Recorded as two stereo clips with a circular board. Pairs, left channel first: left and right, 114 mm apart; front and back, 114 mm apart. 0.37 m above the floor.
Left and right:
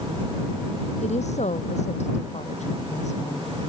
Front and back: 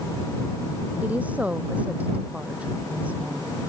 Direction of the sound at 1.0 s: 105° left.